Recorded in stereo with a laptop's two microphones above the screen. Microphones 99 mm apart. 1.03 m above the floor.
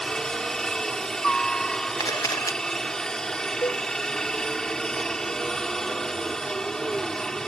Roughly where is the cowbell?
Left.